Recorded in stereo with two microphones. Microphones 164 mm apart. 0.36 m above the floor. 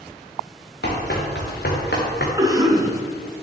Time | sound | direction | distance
0.8 | running footsteps | 75° left (ahead or behind) | 3.5 m
2.4 | a cough | 20° right (ahead or behind) | 3 m